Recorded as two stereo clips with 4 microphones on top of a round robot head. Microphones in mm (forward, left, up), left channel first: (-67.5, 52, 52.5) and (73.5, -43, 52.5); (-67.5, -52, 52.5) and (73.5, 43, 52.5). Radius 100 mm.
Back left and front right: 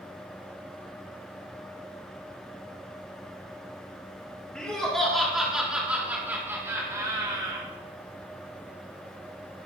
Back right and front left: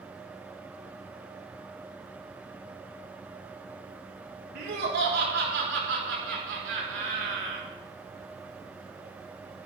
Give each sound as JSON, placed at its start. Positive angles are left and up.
{"t": 4.5, "sound": "laughter", "azimuth_deg": 60, "distance_m": 6.5}